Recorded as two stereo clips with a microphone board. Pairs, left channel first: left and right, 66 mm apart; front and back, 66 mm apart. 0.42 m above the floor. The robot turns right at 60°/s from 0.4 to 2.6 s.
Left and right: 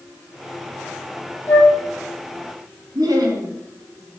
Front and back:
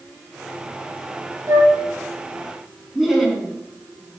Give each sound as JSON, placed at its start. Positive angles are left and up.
{"t": 1.5, "sound": "a flute", "azimuth_deg": 145, "distance_m": 4.0}
{"t": 3.0, "sound": "laughter", "azimuth_deg": -95, "distance_m": 4.0}